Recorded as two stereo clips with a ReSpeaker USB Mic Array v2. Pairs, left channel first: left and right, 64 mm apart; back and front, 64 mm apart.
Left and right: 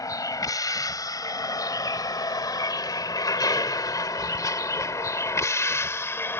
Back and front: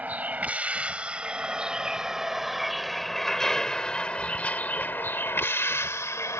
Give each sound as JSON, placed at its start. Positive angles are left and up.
{"t": 0.0, "sound": "a vehicle", "azimuth_deg": 65}